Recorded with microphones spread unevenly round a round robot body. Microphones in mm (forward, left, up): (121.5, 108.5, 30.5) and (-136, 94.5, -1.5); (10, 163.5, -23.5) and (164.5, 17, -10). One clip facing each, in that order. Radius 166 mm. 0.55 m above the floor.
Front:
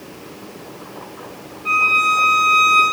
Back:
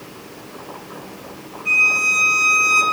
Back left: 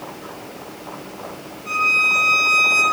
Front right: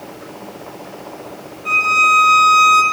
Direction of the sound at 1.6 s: 35° right.